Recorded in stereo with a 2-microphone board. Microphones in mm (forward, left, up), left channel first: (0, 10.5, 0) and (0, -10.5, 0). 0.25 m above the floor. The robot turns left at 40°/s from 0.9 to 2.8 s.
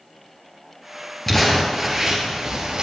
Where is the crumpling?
15° left, 3 m; by 2.8 s 45° right, 3 m.